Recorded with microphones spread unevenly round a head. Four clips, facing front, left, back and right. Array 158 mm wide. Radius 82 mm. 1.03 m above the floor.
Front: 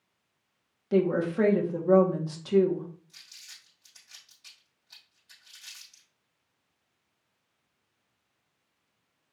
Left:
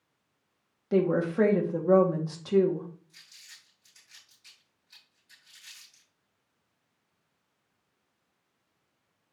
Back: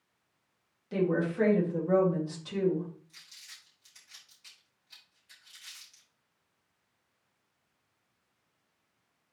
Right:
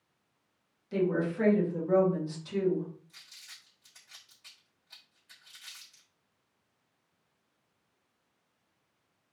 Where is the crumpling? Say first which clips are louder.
Right 1 dB, even; 70° right, 4 m.